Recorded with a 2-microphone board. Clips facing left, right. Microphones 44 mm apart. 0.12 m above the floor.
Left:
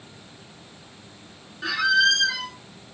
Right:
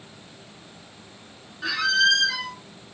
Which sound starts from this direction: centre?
A squeak, at 1.6 s.